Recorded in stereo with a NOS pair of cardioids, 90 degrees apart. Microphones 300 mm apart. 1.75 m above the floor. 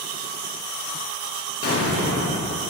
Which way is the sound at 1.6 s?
50° left.